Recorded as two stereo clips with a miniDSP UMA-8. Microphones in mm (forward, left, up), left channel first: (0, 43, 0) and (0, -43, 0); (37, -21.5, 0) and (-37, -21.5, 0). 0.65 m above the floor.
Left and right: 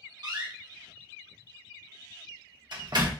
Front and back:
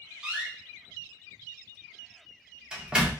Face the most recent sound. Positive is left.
turn(degrees=-105)